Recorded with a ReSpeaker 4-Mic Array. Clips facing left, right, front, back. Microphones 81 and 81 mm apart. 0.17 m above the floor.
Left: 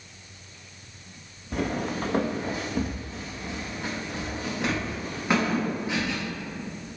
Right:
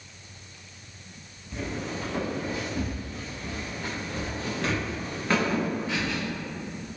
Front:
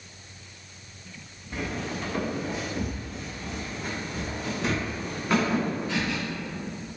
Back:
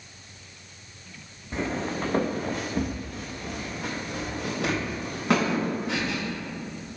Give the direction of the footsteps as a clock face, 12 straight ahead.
8 o'clock.